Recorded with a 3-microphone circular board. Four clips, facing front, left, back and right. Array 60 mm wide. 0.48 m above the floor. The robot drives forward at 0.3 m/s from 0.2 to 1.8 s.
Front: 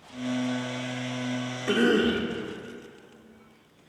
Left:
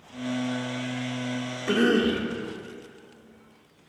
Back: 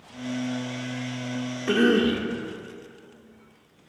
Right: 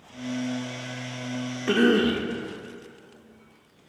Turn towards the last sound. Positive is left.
turn(degrees=-125)